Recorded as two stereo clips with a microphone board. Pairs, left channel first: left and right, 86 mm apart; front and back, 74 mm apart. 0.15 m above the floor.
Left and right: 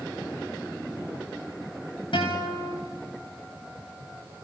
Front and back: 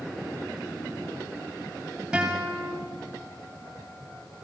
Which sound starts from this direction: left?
A guitar, at 2.1 s.